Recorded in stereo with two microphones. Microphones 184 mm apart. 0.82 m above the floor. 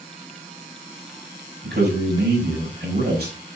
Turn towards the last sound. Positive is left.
turn(degrees=-65)  # may be behind; listen again after turning